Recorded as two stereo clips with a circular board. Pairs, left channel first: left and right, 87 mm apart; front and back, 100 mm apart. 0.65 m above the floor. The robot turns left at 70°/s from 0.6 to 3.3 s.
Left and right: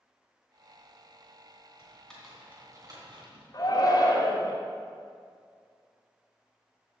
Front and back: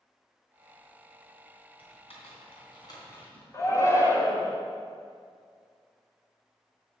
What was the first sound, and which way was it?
Typing on a keyboard, 30° left.